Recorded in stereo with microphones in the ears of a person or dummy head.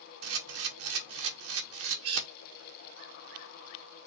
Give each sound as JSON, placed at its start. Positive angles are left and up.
{"t": 0.2, "sound": "a camera shutter", "side_deg": -80, "distance_m": 1.6}